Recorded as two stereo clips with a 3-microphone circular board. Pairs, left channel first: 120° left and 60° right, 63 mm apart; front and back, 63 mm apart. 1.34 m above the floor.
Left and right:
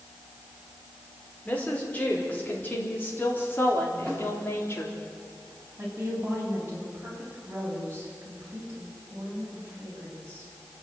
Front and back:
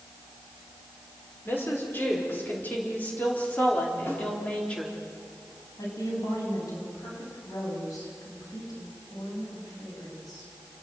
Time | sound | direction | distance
1.4 | a woman speaking | 55° left | 5 m
4.1 | a snare drum | 45° left | 9 m
5.8 | a woman speaking | 5° right | 9 m